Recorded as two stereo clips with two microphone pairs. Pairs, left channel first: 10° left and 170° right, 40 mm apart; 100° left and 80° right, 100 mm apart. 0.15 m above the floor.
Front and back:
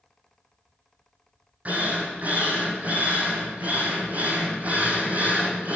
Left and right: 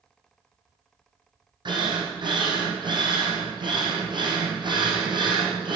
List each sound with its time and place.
1.6 s a drill: 120° right, 4 m